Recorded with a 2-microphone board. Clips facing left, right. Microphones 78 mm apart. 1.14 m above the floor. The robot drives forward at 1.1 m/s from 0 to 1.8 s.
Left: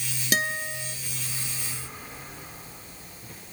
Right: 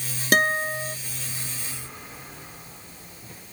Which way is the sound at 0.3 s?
50° right (ahead or behind).